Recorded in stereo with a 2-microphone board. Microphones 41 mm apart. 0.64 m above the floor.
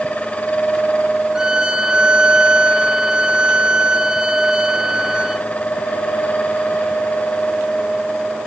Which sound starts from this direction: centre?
A violin, at 1.4 s.